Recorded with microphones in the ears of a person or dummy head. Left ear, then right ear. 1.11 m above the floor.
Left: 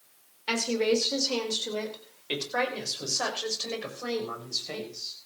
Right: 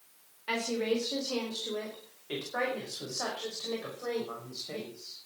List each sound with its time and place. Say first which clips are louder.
0.5 s a woman speaking: left 5 dB; 85° left, 4.5 m; by 5.2 s 75° left (ahead or behind), 7 m